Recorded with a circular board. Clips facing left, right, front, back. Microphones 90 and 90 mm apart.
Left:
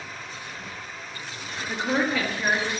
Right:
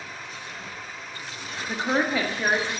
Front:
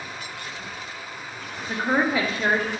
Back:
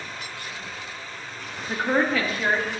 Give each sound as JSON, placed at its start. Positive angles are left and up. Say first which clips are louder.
{"t": 1.7, "sound": "a woman speaking", "louder": "even, even", "azimuth_deg": -90, "distance_m": 1.3}